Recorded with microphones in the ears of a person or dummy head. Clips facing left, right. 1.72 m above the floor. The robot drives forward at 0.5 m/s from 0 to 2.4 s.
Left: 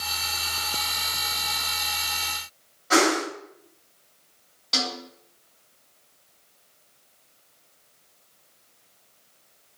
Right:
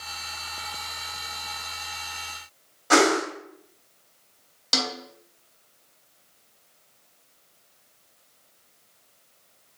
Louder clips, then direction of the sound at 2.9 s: Right 2 dB; 70° right (ahead or behind).